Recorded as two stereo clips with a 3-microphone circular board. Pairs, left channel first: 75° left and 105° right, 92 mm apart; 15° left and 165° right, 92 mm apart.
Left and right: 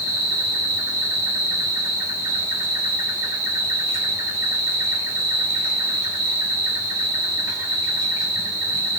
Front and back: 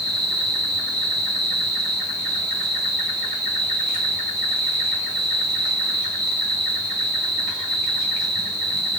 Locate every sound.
0.0 s an insect: 80° right, 3 m